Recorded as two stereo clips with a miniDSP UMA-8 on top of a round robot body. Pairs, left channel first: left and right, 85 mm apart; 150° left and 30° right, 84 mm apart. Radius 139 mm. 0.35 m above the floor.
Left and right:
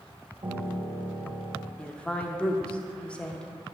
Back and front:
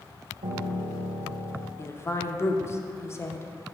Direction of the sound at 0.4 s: 35° right.